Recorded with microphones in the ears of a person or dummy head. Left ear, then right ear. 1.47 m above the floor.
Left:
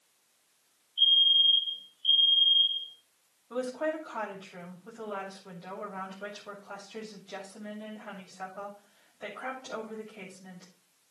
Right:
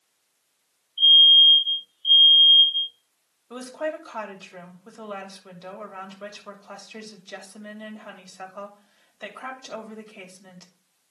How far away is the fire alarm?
About 5 m.